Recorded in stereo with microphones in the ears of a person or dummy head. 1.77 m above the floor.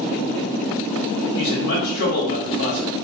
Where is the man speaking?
60° left (ahead or behind), 1.5 m.